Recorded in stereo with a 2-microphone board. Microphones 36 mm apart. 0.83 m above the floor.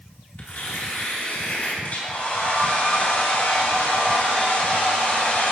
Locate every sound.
0.4 s tearing paper: 45° left (ahead or behind), 2 m
1.8 s a hair dryer: 50° left (ahead or behind), 2.5 m